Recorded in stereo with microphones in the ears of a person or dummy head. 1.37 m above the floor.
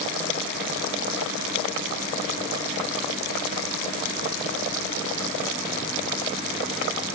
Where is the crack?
No crack in this recording.